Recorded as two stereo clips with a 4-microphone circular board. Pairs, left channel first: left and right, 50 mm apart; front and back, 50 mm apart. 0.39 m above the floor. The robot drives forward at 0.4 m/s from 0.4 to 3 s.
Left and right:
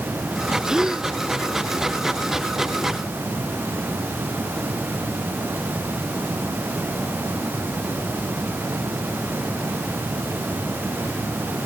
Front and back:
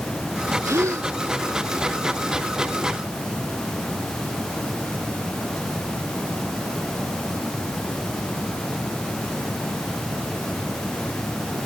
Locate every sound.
0.6 s a gasp: 165° right